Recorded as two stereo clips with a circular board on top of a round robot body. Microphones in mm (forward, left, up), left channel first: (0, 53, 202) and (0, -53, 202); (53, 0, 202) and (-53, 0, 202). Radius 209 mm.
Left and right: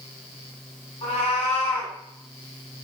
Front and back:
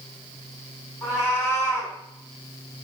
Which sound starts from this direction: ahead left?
A cat meowing, at 1.0 s.